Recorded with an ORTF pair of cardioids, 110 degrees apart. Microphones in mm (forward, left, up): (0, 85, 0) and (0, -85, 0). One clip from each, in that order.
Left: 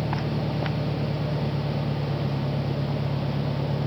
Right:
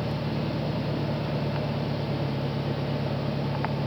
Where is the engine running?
20° left.